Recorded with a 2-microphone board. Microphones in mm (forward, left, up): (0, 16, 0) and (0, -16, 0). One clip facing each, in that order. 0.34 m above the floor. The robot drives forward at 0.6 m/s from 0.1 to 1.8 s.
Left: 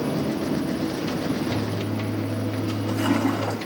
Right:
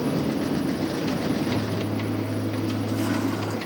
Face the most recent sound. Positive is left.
turn(degrees=75)  # may be behind; listen again after turning